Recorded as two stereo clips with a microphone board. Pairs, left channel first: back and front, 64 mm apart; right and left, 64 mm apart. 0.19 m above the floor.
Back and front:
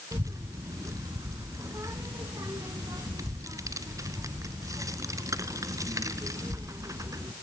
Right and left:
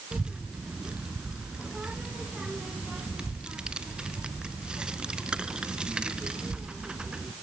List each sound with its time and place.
0.1 s a child speaking: 15° left, 1.4 m